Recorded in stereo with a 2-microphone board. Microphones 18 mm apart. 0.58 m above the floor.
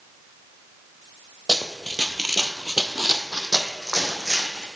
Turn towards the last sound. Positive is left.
turn(degrees=-40)  # may be behind; listen again after turning